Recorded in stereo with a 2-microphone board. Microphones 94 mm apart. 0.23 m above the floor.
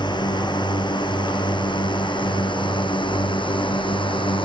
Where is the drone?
50° left (ahead or behind); by 4.5 s 60° left (ahead or behind).